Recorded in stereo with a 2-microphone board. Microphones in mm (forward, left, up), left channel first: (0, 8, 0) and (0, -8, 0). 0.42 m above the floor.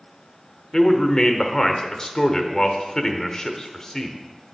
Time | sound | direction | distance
0.7 | a man speaking | 35° left (ahead or behind) | 0.9 m